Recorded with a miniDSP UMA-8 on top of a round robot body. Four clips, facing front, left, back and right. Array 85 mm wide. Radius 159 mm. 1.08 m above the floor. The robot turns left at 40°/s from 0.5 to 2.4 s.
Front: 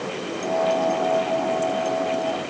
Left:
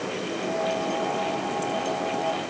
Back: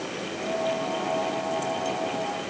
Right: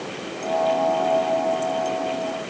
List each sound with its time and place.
Only background noise.